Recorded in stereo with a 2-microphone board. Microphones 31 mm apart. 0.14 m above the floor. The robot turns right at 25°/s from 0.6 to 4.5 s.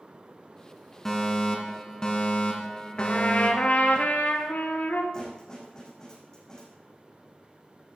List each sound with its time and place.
1.1 s a fire alarm: 20° left, 2 m; by 4.0 s 90° left, 2 m
3.0 s a trumpet: 40° left, 1.5 m; by 5.0 s 80° left, 1.5 m
5.1 s a snare drum: 20° left (ahead or behind), 6.5 m